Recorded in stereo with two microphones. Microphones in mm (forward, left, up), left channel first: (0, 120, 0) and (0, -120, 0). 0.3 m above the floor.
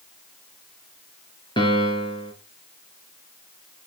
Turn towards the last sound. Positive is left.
turn(degrees=20)  # may be behind; listen again after turning